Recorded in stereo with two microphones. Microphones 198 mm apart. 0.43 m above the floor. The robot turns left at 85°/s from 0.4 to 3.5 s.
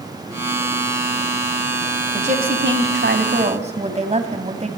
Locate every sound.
2.1 s a woman speaking: 30° right, 3 m; by 4.7 s 145° right, 3 m